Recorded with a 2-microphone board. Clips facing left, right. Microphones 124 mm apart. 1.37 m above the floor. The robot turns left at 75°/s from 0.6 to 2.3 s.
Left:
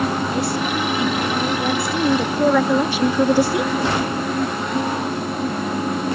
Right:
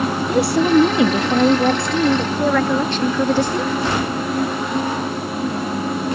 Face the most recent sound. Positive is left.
turn(degrees=170)